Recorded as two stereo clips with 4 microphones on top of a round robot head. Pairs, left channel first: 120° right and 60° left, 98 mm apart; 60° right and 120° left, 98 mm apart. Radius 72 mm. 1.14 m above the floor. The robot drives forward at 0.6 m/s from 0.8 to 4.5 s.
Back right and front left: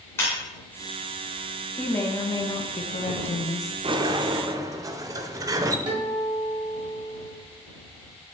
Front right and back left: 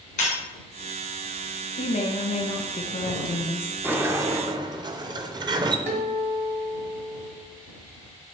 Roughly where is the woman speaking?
Ahead right.